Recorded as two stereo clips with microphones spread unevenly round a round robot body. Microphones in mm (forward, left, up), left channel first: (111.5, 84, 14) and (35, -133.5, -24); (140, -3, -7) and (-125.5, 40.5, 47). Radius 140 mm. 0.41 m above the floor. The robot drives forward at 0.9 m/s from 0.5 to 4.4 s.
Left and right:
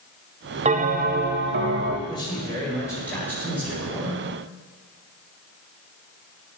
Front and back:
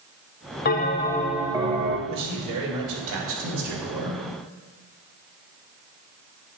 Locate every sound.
0.7 s a bell: 55° right, 1.1 m; by 2.0 s 125° right, 1.2 m
2.1 s a man speaking: 150° left, 2.5 m; by 4.2 s 165° left, 4 m